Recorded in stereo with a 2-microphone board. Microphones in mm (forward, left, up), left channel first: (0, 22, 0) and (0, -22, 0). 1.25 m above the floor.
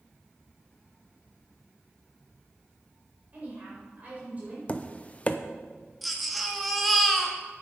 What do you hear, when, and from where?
3.3 s a woman speaking: 35° right (ahead or behind), 4.5 m
4.7 s tapping: 30° left (ahead or behind), 0.6 m
6.0 s a baby crying: centre (ahead or behind), 1.1 m